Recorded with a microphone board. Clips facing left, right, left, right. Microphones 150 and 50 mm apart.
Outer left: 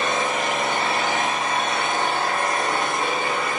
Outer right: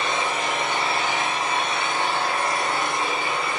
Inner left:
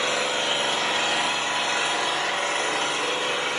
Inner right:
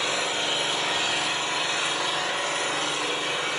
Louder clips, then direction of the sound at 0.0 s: Outer left 2 dB, inner left 2 dB; 45° left (ahead or behind).